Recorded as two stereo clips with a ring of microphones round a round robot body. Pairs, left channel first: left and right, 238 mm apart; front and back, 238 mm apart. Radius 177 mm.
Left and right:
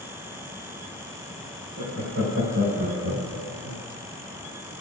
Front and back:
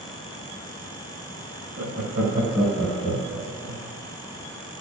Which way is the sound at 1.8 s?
135° right.